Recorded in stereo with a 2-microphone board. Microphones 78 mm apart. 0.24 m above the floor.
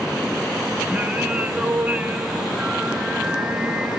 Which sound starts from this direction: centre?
Singing, at 0.9 s.